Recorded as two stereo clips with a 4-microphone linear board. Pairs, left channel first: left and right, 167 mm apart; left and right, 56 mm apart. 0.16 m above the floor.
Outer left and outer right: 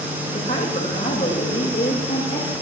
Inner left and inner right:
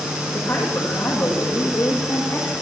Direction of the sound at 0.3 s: 60° left (ahead or behind).